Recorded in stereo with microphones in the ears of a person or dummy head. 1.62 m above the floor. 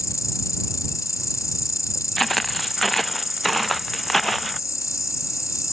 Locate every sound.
0.0 s an insect: 15° left (ahead or behind)
2.2 s footsteps: centre (ahead or behind)